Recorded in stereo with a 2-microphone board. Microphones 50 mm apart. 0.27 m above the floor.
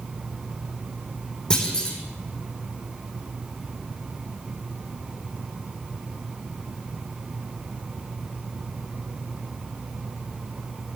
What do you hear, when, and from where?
1.5 s a clunk: 10° left (ahead or behind), 4.5 m